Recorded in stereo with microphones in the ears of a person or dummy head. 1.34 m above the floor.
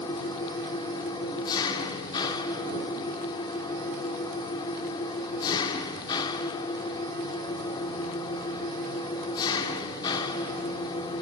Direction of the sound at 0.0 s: 20° left (ahead or behind).